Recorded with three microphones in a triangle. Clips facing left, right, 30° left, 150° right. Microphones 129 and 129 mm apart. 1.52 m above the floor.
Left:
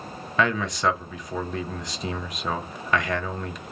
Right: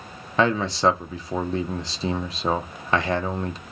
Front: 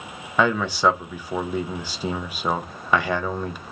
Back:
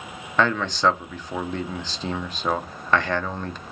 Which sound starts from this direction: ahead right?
A man speaking, at 0.4 s.